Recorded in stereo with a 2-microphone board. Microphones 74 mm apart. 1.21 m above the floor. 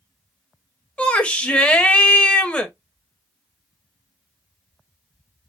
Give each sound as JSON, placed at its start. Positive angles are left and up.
{"t": 1.0, "sound": "a shout", "side_deg": 15, "distance_m": 1.5}